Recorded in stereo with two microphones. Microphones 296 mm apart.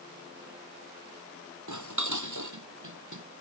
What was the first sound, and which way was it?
Dishes clattering, 80° right.